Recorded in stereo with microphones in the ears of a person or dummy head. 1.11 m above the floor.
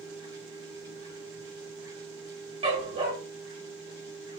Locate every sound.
0.0 s a machine running: 25° right (ahead or behind), 4.5 m
2.6 s a dog barking: 30° right (ahead or behind), 2.0 m